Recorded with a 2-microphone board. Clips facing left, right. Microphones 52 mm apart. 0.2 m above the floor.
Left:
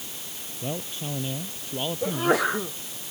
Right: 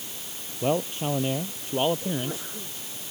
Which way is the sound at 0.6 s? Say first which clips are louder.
Right 8 dB; 45° right (ahead or behind).